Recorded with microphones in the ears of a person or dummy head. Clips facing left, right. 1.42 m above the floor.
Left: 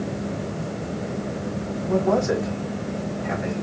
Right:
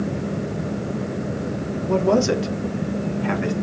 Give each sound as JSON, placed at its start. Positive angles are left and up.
{"t": 1.8, "sound": "a man speaking", "side_deg": -40, "distance_m": 1.1}